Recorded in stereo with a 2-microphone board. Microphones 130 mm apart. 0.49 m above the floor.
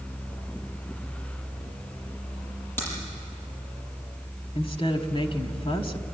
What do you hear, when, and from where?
2.8 s a crack: 15° left (ahead or behind), 7 m
4.5 s a woman speaking: 45° left (ahead or behind), 1.6 m